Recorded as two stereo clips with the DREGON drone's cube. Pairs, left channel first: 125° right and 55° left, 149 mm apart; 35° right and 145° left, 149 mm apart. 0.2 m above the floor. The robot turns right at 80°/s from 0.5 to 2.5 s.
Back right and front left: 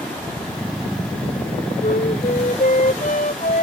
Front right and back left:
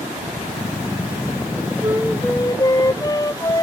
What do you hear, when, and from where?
1.8 s a flute: 155° right; by 3.6 s 100° right